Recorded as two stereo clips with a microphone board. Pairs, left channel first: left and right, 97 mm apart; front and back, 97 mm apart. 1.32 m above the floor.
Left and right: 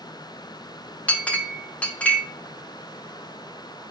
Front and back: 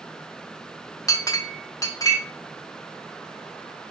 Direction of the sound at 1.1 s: 20° left.